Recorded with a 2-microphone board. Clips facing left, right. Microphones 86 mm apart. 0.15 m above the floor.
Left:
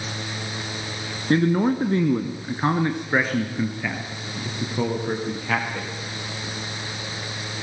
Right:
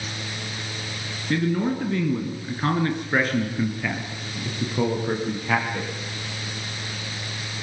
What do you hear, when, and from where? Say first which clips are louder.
1.3 s a man speaking: left 4 dB; 40° left (ahead or behind), 1.6 m; by 5.9 s 5° right (ahead or behind), 4.5 m